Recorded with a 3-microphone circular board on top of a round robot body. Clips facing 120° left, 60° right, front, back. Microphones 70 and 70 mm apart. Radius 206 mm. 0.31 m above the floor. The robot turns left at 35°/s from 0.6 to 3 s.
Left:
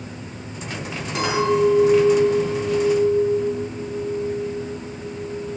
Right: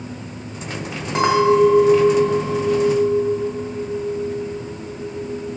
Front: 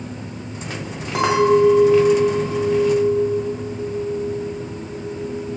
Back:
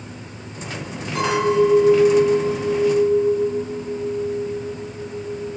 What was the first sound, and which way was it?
A clink, 5° right.